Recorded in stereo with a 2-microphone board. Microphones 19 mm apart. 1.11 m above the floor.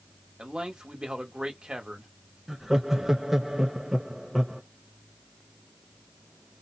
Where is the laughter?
20° right (ahead or behind), 0.7 m.